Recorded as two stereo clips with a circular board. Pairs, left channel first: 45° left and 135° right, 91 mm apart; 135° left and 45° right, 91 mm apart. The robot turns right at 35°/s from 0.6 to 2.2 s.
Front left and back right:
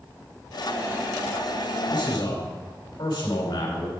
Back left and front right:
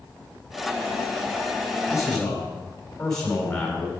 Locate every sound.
1.9 s a man speaking: 40° left, 4.5 m; by 3.9 s 50° left, 4.5 m